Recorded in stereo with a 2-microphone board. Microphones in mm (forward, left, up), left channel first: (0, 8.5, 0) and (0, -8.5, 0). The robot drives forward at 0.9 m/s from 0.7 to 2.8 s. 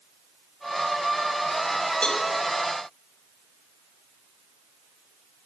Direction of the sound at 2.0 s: 55° left (ahead or behind).